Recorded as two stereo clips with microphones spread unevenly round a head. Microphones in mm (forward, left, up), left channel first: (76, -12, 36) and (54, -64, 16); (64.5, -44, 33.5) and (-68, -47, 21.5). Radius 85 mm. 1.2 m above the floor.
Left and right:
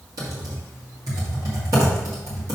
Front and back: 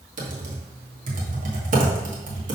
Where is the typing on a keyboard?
160° right, 1.8 m.